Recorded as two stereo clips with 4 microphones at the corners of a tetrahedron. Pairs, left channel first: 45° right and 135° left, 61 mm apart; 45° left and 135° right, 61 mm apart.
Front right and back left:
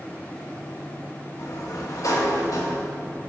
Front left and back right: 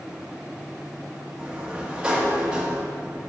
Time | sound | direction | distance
1.4 | a sliding door | 60° right | 1.5 m